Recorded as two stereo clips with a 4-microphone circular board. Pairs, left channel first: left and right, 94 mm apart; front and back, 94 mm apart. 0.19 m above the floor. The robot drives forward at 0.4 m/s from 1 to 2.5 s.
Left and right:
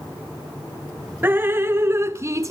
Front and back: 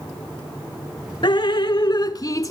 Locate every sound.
1.2 s dripping: 25° right, 1.1 m; by 2.5 s 45° right, 0.8 m